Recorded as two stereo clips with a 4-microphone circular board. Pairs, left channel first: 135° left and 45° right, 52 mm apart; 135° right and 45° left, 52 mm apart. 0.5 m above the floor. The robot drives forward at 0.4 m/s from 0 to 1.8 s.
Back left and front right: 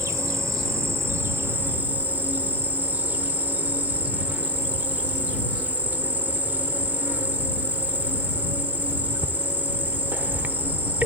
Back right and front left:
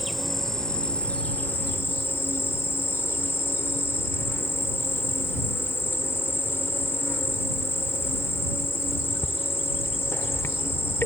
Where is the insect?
45° right, 0.9 m; by 11.1 s 100° right, 0.7 m.